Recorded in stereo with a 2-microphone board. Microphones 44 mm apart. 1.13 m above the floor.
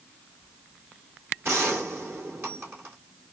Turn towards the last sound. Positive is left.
turn(degrees=-65)  # may be behind; listen again after turning